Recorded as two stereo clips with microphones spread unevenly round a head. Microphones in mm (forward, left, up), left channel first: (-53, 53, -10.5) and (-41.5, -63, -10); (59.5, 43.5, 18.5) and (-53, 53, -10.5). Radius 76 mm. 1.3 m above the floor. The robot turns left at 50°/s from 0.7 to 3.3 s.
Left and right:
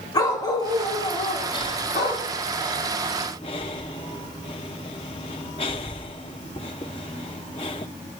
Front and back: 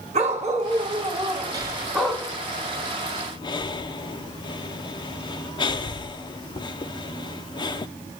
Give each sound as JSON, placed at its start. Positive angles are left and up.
{"t": 0.1, "sound": "a dog barking", "azimuth_deg": 150, "distance_m": 3.0}
{"t": 1.5, "sound": "breathing", "azimuth_deg": 135, "distance_m": 0.8}